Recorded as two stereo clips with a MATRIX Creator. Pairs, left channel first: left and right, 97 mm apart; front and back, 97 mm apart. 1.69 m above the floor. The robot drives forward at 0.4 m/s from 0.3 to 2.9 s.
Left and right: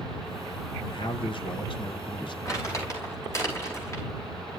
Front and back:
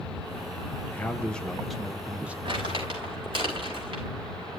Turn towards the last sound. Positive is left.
turn(degrees=145)